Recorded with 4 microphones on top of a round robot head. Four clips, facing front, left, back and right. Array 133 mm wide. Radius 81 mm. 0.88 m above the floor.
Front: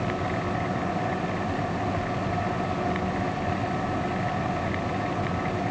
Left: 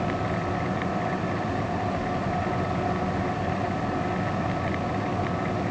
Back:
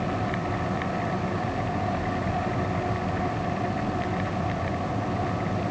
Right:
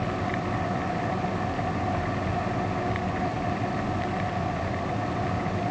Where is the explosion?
No explosion in this recording.